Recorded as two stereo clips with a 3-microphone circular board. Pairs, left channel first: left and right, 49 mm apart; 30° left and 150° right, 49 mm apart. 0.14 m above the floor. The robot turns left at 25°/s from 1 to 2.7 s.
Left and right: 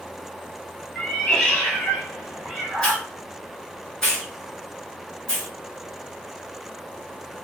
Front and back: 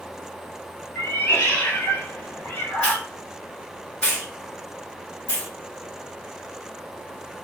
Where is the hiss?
35° left, 1.5 m.